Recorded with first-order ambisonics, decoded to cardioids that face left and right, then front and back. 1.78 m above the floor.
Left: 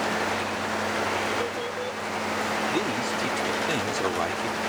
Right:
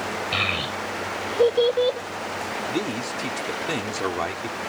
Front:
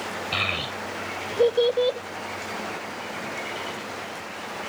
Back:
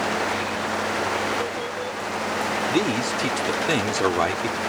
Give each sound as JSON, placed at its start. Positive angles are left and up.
{"t": 0.3, "sound": "a child speaking", "azimuth_deg": -50}
{"t": 2.7, "sound": "a man speaking", "azimuth_deg": -175}